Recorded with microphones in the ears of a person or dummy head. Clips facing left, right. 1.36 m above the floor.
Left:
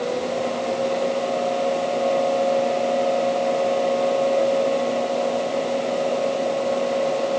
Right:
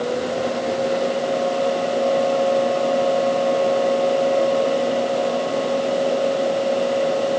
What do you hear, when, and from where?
Only background noise.